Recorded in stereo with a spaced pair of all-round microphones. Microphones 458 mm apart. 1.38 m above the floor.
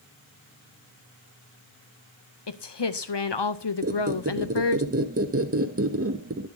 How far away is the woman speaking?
About 0.7 m.